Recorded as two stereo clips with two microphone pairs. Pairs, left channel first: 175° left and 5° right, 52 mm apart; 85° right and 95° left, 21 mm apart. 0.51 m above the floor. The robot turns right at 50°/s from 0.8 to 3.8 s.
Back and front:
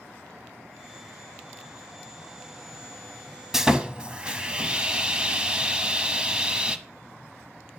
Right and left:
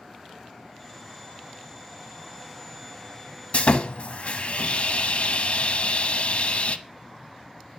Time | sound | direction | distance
3.5 | sawing | 90° right | 0.8 m